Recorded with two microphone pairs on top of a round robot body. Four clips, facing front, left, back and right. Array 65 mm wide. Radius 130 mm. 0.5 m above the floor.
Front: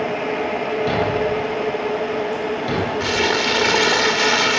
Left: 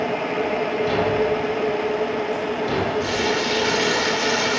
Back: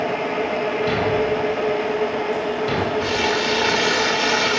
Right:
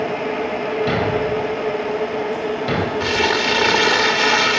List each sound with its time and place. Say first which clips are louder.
0.9 s a thud: even, front 1 dB; 80° right, 1.7 m
3.0 s crumpling: right 3 dB, front 1 dB; 55° right, 1.2 m